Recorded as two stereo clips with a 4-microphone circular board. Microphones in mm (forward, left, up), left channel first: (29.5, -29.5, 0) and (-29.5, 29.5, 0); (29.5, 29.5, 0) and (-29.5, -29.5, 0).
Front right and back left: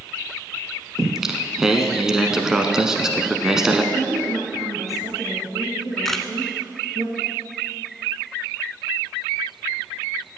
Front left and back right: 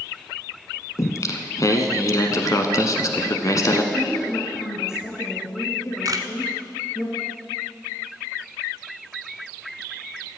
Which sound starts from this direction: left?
A woman speaking, at 3.9 s.